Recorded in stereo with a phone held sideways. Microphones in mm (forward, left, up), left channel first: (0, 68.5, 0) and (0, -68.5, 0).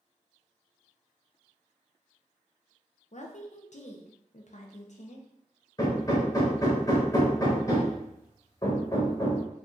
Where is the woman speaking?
60° left (ahead or behind), 0.5 m.